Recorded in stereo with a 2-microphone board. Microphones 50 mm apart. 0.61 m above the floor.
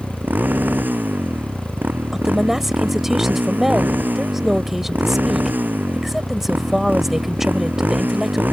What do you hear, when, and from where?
0.0 s a motorcycle: 35° right (ahead or behind)
2.1 s a woman speaking: 5° right (ahead or behind)